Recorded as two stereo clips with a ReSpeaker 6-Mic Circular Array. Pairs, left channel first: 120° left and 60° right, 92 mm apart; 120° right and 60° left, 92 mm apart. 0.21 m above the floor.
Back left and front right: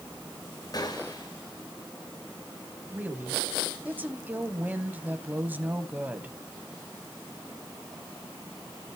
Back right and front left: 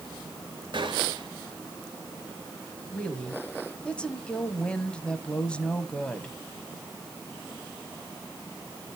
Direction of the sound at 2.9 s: 65° right.